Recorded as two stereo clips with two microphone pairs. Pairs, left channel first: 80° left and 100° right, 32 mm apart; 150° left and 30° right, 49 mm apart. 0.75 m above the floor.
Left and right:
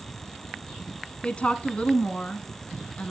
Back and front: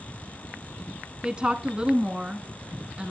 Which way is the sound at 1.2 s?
45° left.